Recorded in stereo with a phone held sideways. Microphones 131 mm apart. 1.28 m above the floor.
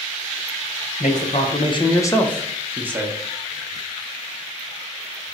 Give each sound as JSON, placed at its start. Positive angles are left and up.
{"t": 1.0, "sound": "a man speaking", "side_deg": 65, "distance_m": 0.9}